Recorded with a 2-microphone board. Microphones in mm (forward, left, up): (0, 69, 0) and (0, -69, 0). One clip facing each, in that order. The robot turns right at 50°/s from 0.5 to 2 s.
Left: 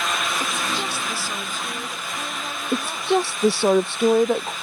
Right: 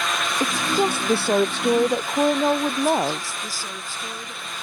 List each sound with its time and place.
0.4 s a woman speaking: 145° right; by 3.3 s 70° right
2.7 s a woman speaking: 70° left (ahead or behind)